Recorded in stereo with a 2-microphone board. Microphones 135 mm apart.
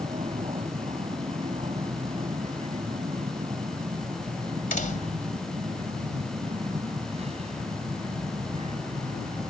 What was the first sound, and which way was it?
An aircraft, 45° right (ahead or behind).